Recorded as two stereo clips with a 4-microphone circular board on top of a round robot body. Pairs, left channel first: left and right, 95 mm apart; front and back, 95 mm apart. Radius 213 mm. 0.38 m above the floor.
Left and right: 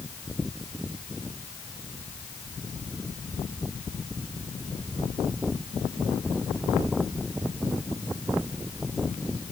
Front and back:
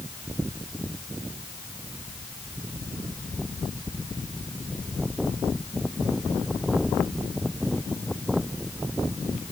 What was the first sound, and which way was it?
Only background noise.